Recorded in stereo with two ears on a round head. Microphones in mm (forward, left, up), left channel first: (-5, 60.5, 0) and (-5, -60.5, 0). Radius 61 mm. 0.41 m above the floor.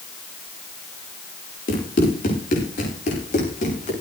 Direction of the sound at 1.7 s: 65° left (ahead or behind).